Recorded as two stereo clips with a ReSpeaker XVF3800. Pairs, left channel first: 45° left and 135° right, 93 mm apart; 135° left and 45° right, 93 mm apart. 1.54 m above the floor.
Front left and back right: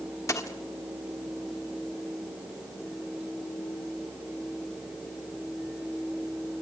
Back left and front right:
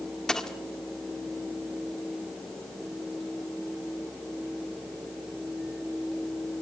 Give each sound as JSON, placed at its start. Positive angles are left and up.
{"t": 0.3, "sound": "a dropped coin", "azimuth_deg": 55, "distance_m": 1.2}